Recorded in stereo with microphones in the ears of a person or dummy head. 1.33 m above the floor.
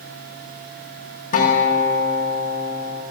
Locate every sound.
1.3 s a guitar: 50° left (ahead or behind), 3 m